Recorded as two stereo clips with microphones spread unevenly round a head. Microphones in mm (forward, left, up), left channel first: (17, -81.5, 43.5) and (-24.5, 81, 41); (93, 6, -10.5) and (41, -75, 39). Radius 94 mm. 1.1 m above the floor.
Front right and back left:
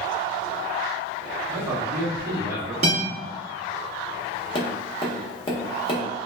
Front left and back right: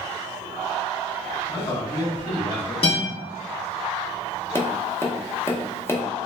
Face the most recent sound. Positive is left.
turn(degrees=-10)